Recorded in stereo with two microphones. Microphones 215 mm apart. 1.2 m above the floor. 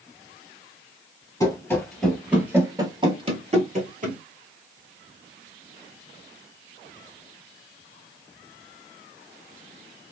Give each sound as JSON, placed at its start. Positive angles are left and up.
{"t": 1.4, "sound": "running footsteps", "side_deg": 15, "distance_m": 1.3}